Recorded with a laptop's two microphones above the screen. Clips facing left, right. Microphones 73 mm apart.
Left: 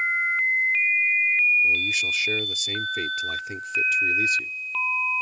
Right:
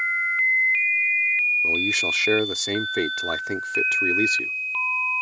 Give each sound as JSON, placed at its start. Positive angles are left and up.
{"t": 1.6, "sound": "a man speaking", "side_deg": -70}